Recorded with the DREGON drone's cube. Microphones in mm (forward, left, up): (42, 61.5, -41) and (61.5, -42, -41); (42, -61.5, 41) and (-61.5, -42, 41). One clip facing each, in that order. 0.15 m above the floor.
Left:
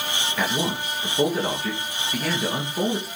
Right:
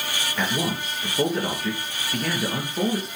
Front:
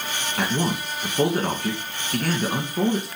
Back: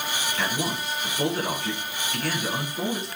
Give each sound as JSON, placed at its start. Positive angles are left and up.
{"t": 0.4, "sound": "a man speaking", "azimuth_deg": 10, "distance_m": 2.5}